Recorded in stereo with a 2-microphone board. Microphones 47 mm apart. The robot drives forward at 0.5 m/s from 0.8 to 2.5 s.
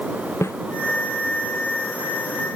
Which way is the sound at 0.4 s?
85° left.